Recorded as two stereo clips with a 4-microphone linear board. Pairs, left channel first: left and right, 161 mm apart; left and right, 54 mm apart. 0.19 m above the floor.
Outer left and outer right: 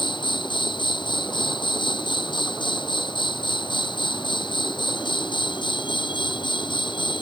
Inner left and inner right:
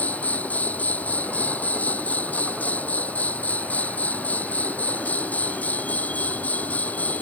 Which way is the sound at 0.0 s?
30° left (ahead or behind).